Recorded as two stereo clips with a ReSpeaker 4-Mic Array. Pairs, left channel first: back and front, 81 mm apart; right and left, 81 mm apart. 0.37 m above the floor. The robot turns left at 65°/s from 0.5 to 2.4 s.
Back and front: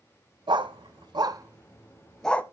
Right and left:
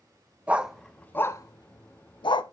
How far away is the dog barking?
About 0.7 m.